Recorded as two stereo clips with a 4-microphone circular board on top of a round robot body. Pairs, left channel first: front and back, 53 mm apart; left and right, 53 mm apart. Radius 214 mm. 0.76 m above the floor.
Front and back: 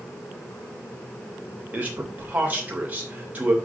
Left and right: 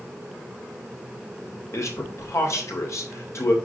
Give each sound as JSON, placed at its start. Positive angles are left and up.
{"t": 1.7, "sound": "a man speaking", "azimuth_deg": 120, "distance_m": 3.0}